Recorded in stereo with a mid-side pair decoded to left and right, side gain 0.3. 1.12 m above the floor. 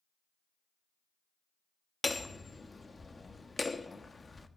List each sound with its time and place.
2.0 s hammering: 30° left, 1.1 m